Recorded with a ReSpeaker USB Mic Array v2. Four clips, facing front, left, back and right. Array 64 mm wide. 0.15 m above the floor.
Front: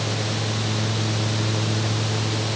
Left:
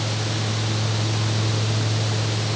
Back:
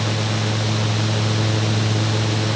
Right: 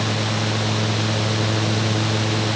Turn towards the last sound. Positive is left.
No sound to turn to.